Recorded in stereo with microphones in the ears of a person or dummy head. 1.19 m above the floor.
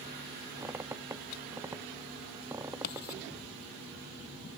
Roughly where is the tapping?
I don't hear tapping.